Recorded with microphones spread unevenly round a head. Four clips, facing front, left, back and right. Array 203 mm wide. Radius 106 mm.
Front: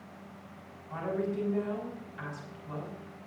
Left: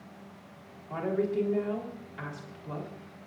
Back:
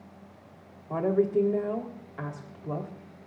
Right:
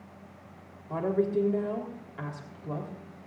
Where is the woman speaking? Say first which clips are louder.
Right 2 dB, back 8 dB; 165° right, 3.5 m.